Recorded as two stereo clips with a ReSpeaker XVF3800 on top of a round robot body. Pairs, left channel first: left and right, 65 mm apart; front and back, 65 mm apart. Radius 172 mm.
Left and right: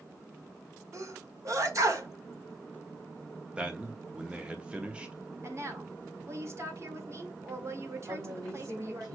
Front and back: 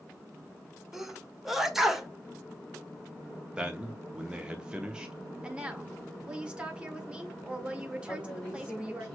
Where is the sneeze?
95° right, 1.6 m.